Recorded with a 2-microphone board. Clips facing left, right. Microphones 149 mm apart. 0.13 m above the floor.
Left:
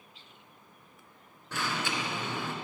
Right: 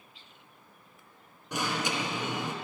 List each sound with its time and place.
1.5 s an alarm: 15° right (ahead or behind), 1.7 m